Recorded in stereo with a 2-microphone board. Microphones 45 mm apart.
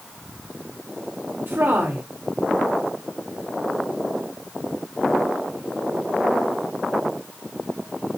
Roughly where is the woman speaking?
Right.